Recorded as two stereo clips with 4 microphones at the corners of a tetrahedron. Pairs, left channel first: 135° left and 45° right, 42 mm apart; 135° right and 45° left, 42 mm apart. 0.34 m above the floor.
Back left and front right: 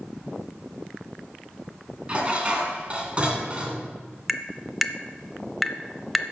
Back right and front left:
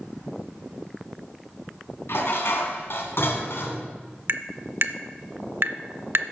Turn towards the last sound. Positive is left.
turn(degrees=45)